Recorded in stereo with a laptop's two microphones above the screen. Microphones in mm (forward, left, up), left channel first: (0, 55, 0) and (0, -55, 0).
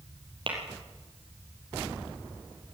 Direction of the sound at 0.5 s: 50° right (ahead or behind).